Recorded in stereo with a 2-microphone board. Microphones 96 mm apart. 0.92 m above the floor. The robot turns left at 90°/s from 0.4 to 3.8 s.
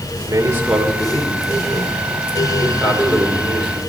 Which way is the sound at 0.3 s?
145° right.